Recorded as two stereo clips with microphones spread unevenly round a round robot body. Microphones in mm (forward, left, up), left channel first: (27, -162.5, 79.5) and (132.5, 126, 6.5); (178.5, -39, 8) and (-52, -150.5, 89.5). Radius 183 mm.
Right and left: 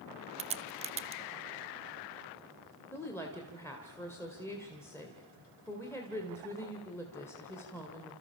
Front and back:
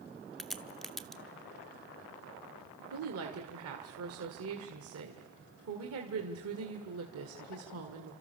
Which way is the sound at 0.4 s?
85° left.